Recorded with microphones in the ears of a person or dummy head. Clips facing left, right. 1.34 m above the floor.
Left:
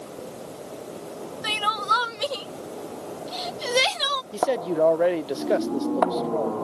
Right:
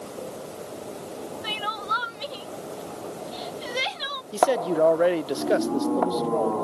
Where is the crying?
60° left (ahead or behind).